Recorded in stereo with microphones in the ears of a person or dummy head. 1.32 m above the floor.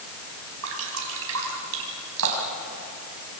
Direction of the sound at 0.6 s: 80° right.